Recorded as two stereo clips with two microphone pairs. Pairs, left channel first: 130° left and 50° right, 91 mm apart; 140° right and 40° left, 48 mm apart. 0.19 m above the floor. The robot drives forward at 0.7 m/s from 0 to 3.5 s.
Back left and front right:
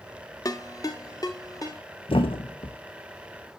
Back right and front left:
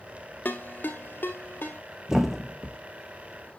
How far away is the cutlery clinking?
I don't hear cutlery clinking.